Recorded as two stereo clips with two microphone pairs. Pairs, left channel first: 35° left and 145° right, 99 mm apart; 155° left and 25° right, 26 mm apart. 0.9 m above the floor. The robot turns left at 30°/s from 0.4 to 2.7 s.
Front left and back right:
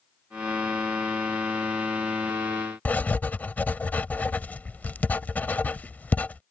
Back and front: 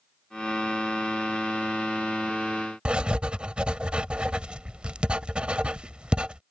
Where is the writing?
30° right.